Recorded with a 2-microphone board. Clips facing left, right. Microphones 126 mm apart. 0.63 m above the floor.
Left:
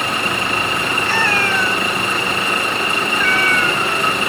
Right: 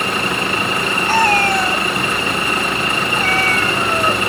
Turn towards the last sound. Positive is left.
turn(degrees=-40)  # may be behind; listen again after turning